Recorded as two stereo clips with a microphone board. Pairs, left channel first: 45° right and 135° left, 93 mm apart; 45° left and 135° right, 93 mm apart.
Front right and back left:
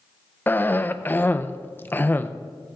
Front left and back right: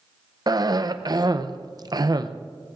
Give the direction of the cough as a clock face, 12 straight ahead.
4 o'clock.